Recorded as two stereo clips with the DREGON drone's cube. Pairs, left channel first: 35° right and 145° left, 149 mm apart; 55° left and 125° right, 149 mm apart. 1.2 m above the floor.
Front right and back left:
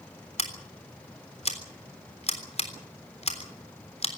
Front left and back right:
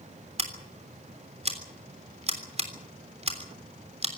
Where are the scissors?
80° right, 3.5 m.